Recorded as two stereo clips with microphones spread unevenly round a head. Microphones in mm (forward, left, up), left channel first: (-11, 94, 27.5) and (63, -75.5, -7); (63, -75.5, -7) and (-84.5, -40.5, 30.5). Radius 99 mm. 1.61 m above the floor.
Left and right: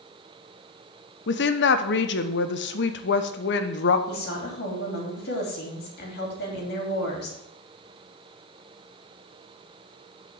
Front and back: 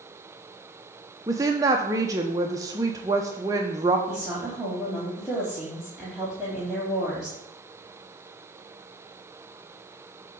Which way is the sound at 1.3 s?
100° left.